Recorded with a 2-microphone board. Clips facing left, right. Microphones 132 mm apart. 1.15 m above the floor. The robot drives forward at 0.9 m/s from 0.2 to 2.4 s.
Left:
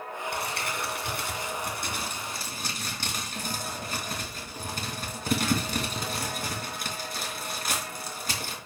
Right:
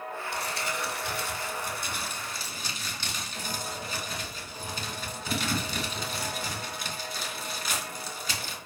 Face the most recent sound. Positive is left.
turn(degrees=60)  # may be behind; listen again after turning